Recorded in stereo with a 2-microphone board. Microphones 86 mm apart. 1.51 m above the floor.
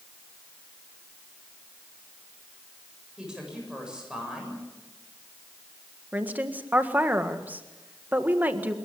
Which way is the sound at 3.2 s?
10° right (ahead or behind).